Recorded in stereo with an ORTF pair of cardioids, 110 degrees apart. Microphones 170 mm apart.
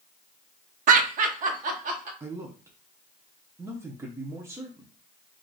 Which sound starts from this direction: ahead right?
Laughter, at 0.9 s.